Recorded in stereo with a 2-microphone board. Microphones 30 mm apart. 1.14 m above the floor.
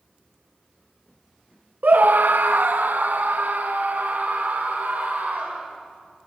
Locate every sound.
1.8 s a scream: 60° right (ahead or behind), 0.5 m; by 5.7 s 65° right (ahead or behind), 4 m